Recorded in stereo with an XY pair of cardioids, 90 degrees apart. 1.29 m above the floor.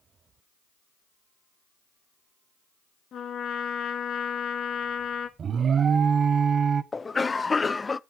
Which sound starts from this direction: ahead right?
An alarm, at 5.4 s.